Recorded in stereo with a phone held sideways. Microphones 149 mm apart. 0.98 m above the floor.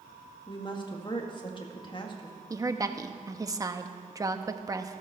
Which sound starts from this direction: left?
A woman speaking, at 0.5 s.